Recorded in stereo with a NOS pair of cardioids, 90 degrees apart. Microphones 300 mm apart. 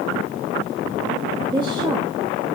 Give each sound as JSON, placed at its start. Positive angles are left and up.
{"t": 1.5, "sound": "a woman speaking", "azimuth_deg": -15, "distance_m": 1.7}